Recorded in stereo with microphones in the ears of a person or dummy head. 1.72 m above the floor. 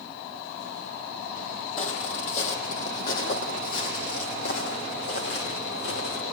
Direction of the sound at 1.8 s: 40° left (ahead or behind).